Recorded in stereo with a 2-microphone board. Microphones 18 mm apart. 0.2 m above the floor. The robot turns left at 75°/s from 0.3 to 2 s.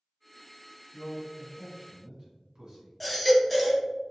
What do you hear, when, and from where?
0.9 s a man speaking: centre (ahead or behind), 1.4 m; by 3.0 s 40° right (ahead or behind), 1.4 m
3.0 s a baby crying: 5° left (ahead or behind), 0.7 m